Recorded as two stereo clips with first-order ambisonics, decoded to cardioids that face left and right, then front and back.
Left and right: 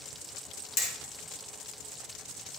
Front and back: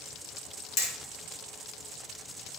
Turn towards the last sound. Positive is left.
turn(degrees=50)